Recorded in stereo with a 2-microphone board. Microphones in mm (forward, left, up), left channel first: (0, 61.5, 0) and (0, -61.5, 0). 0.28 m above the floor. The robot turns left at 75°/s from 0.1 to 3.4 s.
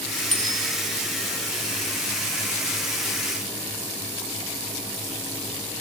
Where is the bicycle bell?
75° left (ahead or behind), 6.5 m.